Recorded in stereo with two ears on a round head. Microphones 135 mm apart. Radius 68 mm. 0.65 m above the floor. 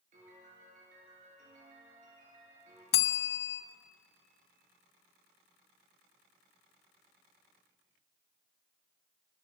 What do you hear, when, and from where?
0.1 s a piano: 55° right (ahead or behind), 8.5 m
2.9 s a bell: 70° left (ahead or behind), 1.1 m